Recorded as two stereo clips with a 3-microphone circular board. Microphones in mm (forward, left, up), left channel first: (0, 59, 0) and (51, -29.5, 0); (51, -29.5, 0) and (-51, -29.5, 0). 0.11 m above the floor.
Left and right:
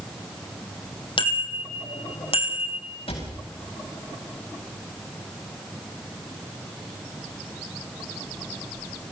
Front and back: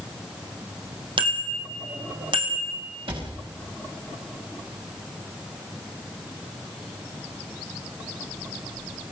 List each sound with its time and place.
1.2 s a bicycle bell: 150° left, 3 m; by 2.8 s 145° left, 4.5 m
3.1 s a cupboard door: 150° left, 8 m